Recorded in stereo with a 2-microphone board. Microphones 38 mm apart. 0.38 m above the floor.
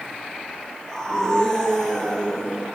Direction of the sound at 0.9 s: 15° left (ahead or behind).